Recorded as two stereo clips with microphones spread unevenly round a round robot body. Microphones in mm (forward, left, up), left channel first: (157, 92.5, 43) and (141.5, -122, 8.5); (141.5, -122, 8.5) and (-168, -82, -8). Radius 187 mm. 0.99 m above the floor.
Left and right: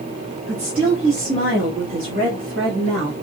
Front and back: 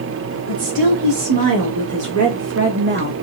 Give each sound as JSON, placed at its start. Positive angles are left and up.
{"t": 0.5, "sound": "a woman speaking", "azimuth_deg": 180, "distance_m": 2.0}